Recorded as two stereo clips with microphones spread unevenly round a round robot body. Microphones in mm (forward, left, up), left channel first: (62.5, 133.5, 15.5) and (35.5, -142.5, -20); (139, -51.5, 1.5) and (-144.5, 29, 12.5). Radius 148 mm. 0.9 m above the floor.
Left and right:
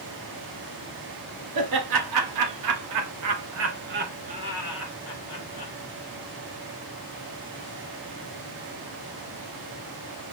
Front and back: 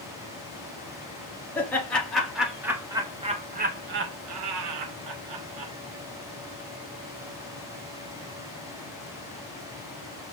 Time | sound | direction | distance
1.6 | laughter | 100° right | 1.7 m